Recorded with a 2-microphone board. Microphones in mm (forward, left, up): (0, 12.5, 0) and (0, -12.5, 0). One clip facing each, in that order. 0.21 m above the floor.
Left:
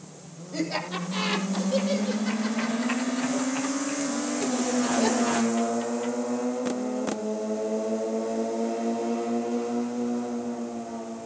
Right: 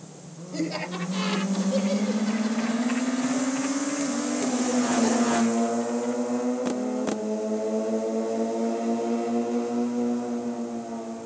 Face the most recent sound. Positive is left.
turn(degrees=35)  # may be behind; listen again after turning